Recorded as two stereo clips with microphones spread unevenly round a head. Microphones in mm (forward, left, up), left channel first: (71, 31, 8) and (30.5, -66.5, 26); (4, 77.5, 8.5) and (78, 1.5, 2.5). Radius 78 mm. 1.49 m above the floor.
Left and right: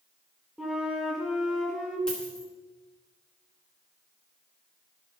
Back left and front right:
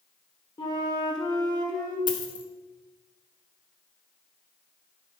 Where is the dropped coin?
160° left, 1.1 m.